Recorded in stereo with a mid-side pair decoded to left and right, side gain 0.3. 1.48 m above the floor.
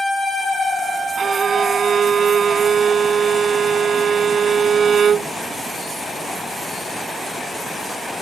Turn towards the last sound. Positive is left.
turn(degrees=-70)